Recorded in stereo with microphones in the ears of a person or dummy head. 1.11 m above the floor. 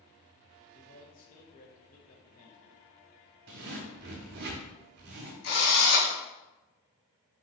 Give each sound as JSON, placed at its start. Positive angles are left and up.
{"t": 0.7, "sound": "a man speaking", "side_deg": 40, "distance_m": 0.9}
{"t": 3.5, "sound": "a zipper", "side_deg": -45, "distance_m": 0.8}
{"t": 5.4, "sound": "a drill", "side_deg": 65, "distance_m": 1.3}